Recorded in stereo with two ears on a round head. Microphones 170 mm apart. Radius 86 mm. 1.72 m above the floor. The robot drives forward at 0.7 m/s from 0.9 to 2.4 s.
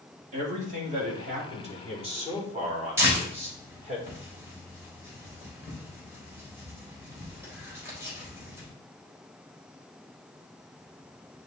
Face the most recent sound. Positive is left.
turn(degrees=-15)  # may be behind; listen again after turning